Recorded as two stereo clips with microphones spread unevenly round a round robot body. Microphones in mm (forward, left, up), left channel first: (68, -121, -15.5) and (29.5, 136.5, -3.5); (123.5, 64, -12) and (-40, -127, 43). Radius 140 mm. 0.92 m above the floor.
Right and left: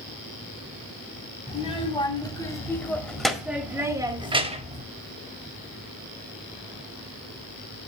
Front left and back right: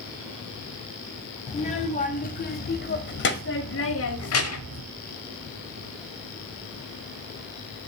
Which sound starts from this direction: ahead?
A child speaking, at 1.5 s.